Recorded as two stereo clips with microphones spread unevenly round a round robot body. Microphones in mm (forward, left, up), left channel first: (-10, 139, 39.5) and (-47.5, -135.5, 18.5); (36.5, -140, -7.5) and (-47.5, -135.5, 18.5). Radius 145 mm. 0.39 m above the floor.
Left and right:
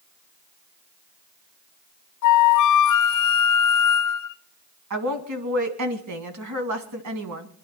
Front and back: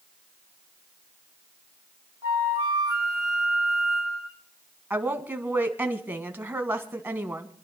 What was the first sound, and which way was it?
A flute, 95° left.